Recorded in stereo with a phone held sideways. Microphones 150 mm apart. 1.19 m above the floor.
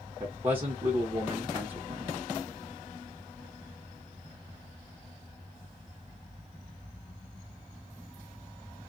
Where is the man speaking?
35° right (ahead or behind), 0.8 m.